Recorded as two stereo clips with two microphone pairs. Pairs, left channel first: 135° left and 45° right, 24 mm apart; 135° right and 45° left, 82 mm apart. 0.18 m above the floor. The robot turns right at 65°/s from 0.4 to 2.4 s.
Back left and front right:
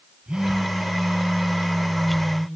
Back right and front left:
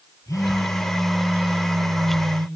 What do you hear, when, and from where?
0.3 s a phone buzzing: 85° right, 4 m; by 2.5 s 45° left, 4 m